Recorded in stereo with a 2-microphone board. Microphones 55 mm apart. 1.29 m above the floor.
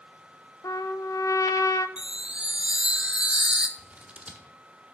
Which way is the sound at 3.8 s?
25° right (ahead or behind).